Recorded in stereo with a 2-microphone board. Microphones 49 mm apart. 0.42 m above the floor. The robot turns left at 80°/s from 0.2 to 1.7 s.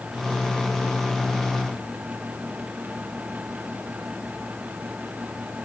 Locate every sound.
Only background noise.